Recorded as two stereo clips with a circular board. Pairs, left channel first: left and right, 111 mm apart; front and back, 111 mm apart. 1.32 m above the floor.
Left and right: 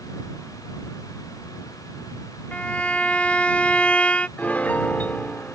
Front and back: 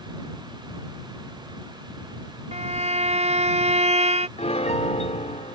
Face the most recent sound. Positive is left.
turn(degrees=15)